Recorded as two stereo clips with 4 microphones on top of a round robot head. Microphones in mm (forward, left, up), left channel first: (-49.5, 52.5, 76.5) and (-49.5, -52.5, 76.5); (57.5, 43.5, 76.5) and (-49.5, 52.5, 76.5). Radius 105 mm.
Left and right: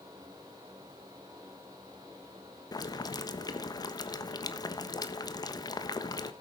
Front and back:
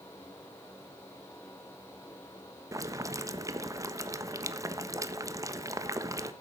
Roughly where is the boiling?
Behind left.